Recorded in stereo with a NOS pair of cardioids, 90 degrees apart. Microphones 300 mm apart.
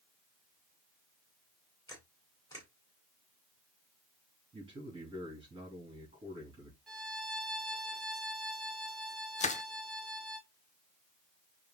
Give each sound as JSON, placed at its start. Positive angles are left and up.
{"t": 1.9, "sound": "a camera shutter", "azimuth_deg": 10, "distance_m": 3.5}
{"t": 4.5, "sound": "a man speaking", "azimuth_deg": -20, "distance_m": 3.0}
{"t": 6.9, "sound": "a violin", "azimuth_deg": 0, "distance_m": 2.5}
{"t": 9.4, "sound": "crushing", "azimuth_deg": 25, "distance_m": 0.7}